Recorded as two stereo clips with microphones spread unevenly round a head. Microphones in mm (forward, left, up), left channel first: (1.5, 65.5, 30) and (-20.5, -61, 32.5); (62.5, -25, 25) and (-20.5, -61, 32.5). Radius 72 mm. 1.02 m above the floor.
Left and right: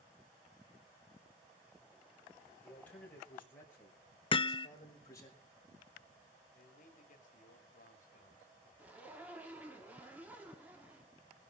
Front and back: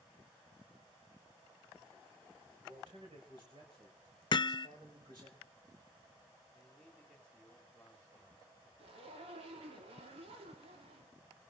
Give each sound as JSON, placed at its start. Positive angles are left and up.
{"t": 2.6, "sound": "a man speaking", "azimuth_deg": 160, "distance_m": 6.0}
{"t": 4.3, "sound": "hammering", "azimuth_deg": 35, "distance_m": 0.6}
{"t": 6.5, "sound": "a man speaking", "azimuth_deg": 105, "distance_m": 2.5}
{"t": 8.8, "sound": "a zipper", "azimuth_deg": 180, "distance_m": 2.5}